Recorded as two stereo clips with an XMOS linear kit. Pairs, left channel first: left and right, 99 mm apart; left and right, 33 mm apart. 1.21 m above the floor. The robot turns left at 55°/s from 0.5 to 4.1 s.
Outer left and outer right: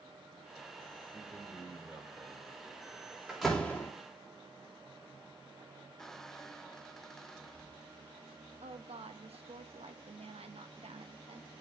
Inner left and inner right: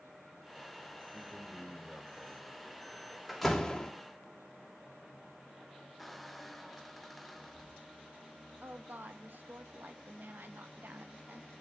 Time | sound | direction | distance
1.1 | a man speaking | 20° left | 4 m
3.3 | a door slam | 170° right | 2.5 m
6.0 | a squeak | 5° left (ahead or behind) | 0.6 m
8.6 | a woman speaking | 85° right | 1.4 m